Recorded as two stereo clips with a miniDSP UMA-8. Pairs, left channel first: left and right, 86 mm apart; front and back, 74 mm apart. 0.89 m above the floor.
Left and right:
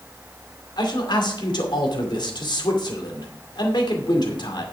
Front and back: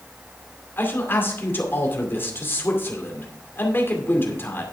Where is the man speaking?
60° left, 2.5 m.